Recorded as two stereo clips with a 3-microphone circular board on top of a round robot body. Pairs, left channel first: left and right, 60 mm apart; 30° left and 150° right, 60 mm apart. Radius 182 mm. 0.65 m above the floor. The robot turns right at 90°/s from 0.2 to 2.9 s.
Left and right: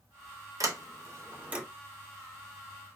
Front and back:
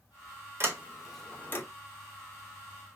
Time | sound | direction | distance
0.6 | a sliding door | 110° right | 1.9 m